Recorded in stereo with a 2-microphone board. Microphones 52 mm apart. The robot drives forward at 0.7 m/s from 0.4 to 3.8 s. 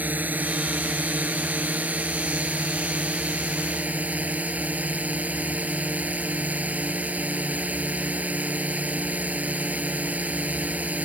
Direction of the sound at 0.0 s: 35° right (ahead or behind).